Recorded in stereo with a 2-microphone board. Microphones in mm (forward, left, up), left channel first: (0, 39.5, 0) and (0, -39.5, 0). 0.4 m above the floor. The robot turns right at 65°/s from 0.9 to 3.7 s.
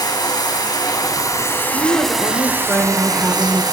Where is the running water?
100° left, 2.5 m; by 3.7 s 80° right, 2.5 m.